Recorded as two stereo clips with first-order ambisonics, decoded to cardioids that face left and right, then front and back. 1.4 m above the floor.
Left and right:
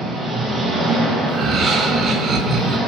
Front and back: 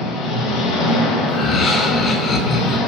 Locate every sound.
0.0 s an engine running: 15° right, 0.7 m
1.3 s laughter: 50° right, 0.5 m